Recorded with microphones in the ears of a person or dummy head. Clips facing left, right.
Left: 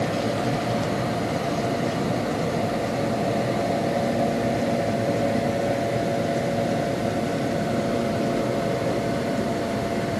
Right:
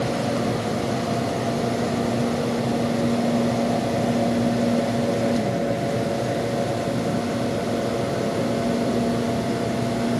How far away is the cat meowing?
I don't hear a cat meowing.